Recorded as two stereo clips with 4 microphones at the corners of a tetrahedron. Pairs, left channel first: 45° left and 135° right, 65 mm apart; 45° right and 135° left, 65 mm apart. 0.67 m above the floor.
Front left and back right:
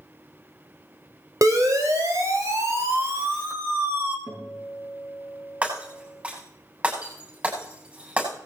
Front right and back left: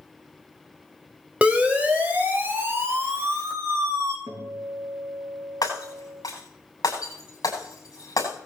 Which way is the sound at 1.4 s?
155° right.